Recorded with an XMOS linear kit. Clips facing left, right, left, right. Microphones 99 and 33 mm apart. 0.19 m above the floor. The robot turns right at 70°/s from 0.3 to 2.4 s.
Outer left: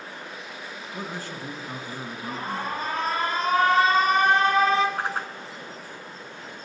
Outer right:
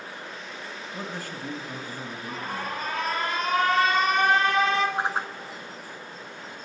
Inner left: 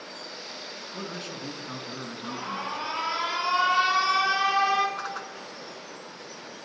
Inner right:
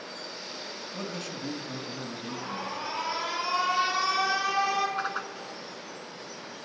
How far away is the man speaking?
About 2.0 m.